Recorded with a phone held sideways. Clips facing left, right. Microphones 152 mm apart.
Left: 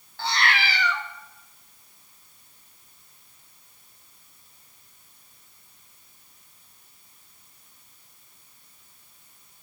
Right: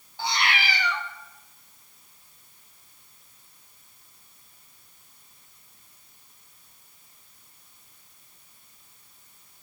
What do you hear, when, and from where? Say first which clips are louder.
0.2 s a cat meowing: left 1 dB; 15° right (ahead or behind), 1.0 m